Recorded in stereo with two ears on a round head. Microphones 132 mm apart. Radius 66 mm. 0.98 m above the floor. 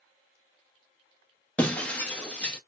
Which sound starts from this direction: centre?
Breaking glass, at 1.6 s.